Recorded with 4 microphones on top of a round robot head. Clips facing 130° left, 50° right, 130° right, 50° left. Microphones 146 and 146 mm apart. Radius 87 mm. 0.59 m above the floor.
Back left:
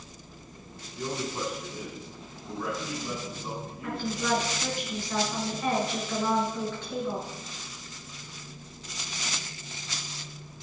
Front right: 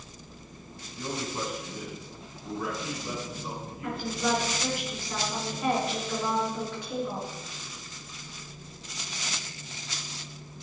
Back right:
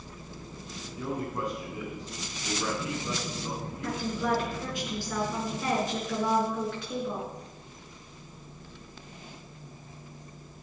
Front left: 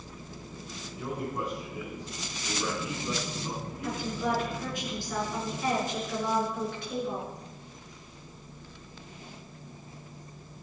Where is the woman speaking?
130° right, 7 m.